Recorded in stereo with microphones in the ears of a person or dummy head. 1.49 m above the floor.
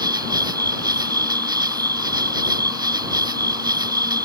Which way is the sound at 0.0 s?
30° right (ahead or behind).